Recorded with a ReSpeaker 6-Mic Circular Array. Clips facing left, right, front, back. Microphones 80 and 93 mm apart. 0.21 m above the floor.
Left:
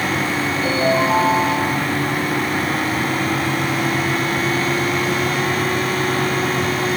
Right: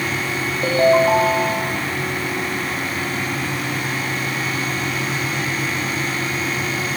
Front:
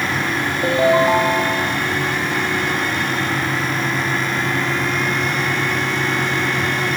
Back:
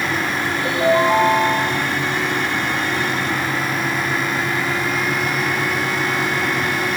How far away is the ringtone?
About 8 m.